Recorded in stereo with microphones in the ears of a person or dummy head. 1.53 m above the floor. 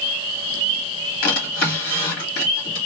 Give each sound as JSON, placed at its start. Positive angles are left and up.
{"t": 1.2, "sound": "a drawer", "side_deg": 50, "distance_m": 1.6}